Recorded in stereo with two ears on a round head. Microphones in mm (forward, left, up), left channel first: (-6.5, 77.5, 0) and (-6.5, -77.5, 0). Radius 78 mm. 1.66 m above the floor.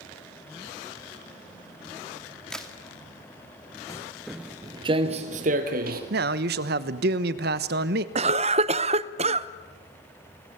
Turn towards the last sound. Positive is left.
turn(degrees=-35)  # may be behind; listen again after turning